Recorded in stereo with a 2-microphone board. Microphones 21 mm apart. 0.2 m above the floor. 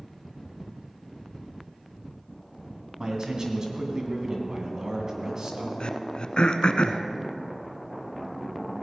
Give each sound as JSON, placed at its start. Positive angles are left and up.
{"t": 3.0, "sound": "a man speaking", "side_deg": -35, "distance_m": 2.0}
{"t": 5.8, "sound": "throat clearing", "side_deg": 50, "distance_m": 0.7}